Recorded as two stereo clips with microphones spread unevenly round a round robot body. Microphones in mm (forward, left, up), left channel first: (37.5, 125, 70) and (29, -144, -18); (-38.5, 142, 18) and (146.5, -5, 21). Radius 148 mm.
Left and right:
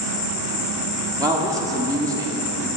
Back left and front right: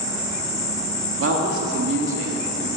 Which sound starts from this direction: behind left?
An insect, at 0.0 s.